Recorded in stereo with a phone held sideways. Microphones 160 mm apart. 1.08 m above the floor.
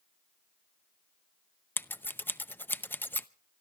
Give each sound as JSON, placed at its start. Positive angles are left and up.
{"t": 1.8, "sound": "scissors", "side_deg": 10, "distance_m": 0.5}